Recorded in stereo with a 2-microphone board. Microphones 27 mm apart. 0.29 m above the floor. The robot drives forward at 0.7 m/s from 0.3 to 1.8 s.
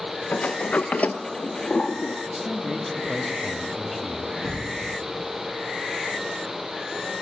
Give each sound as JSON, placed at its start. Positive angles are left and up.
{"t": 0.3, "sound": "a sliding door", "side_deg": 80, "distance_m": 0.8}
{"t": 2.3, "sound": "a man speaking", "side_deg": -5, "distance_m": 1.4}
{"t": 4.4, "sound": "a thud", "side_deg": -85, "distance_m": 5.5}